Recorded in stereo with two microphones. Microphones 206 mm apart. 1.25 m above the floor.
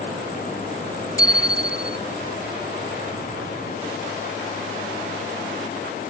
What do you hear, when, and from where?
1.2 s a bicycle bell: 65° right (ahead or behind)